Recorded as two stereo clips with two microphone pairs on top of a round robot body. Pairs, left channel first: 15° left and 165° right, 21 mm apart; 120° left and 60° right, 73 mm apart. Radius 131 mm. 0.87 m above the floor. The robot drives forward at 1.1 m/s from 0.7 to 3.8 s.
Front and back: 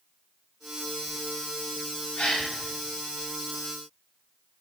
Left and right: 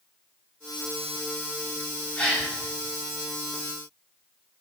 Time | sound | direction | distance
2.2 | a gasp | 45° left | 7.5 m